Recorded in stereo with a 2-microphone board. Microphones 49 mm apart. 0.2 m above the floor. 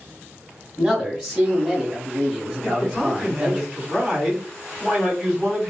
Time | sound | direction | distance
0.8 | a man speaking | centre (ahead or behind) | 1.6 m
2.6 | a man speaking | 5° left (ahead or behind) | 1.6 m